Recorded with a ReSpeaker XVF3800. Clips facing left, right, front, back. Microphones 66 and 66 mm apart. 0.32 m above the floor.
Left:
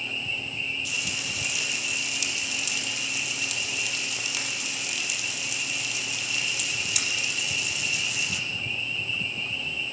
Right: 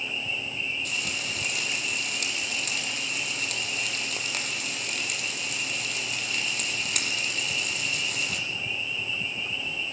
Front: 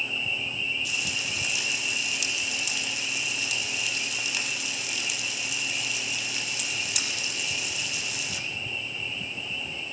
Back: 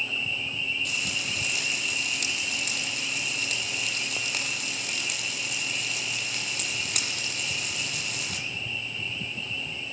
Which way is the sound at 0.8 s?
135° right.